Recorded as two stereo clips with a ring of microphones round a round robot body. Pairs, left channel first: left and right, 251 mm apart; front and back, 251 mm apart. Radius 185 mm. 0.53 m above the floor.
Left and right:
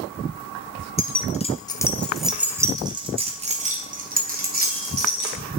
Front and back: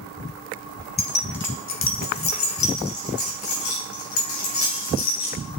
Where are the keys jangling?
45° left, 1.1 m; by 5.4 s 40° right, 2.5 m.